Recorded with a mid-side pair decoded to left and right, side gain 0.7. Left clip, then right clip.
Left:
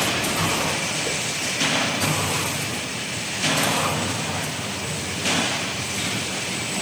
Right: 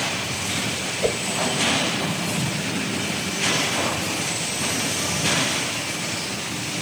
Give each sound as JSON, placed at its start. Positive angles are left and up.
{"t": 1.0, "sound": "a whoosh", "azimuth_deg": -65, "distance_m": 1.8}